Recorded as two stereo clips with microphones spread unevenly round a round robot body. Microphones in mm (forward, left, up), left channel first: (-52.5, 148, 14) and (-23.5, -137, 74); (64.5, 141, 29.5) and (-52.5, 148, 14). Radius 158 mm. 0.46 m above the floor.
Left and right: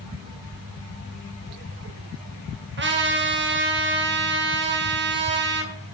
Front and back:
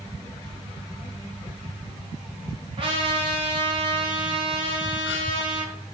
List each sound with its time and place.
2.8 s a trumpet: 140° right, 1.7 m